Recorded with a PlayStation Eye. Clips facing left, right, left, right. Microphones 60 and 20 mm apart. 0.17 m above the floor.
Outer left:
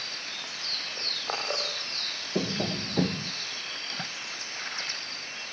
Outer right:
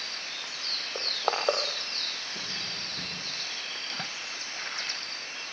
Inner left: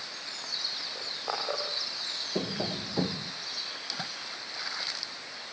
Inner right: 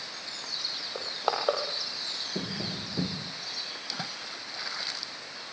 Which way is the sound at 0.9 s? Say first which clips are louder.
Outer right 6 dB, inner right 3 dB; 75° right (ahead or behind).